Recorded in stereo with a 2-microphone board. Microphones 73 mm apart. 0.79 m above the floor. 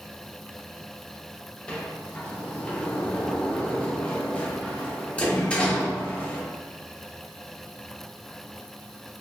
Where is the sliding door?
15° left (ahead or behind), 0.5 m.